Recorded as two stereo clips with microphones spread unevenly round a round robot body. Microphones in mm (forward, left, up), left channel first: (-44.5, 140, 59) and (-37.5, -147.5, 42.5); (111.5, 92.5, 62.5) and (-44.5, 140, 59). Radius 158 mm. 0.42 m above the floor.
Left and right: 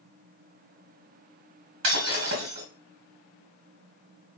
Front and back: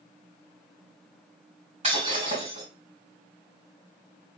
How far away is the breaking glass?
About 3 m.